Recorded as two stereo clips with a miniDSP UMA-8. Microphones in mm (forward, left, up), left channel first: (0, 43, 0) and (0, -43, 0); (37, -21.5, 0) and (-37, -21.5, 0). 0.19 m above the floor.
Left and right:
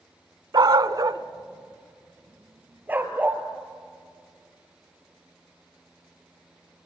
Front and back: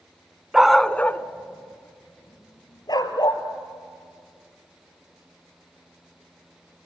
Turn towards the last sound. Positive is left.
turn(degrees=-20)